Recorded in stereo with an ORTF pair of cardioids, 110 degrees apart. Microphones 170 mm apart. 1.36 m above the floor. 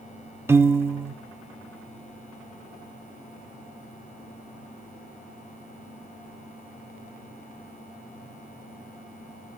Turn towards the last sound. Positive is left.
turn(degrees=-15)